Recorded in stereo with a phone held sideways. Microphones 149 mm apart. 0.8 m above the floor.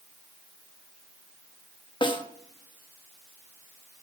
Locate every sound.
2.0 s a snare drum: 30° left (ahead or behind), 0.8 m